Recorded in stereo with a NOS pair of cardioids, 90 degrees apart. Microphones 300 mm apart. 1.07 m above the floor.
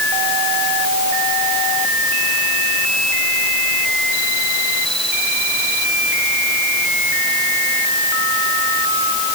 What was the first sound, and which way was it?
Only background noise.